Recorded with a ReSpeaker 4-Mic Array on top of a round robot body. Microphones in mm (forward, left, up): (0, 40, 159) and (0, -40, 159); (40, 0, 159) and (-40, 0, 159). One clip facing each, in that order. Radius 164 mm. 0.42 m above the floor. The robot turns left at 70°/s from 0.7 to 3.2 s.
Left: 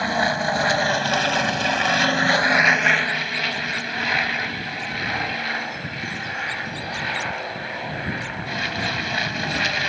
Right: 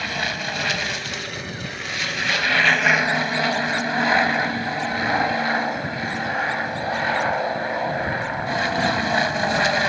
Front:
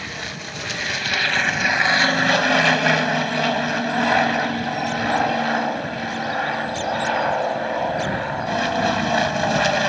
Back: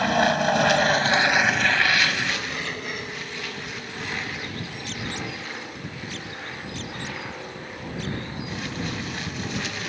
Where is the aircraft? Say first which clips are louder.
Left 6 dB, back 12 dB; 145° left; by 9.9 s 30° right.